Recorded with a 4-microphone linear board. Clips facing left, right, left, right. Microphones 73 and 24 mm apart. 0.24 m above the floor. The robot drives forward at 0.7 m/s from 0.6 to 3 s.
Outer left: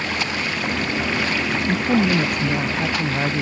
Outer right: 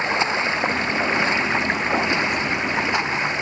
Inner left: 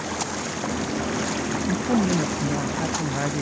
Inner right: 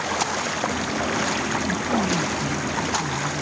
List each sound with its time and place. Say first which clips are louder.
0.0 s running water: outer right 3 dB, inner right 4 dB; 25° right (ahead or behind)
1.7 s a woman speaking: outer left 3 dB, inner left 4 dB; 60° left (ahead or behind); by 3.4 s 55° left (ahead or behind)